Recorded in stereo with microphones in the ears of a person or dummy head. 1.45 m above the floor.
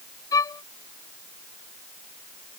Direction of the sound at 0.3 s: 20° left (ahead or behind).